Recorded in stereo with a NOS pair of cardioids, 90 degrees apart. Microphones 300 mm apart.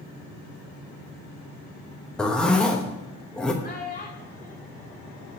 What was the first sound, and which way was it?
A zipper, 5° left.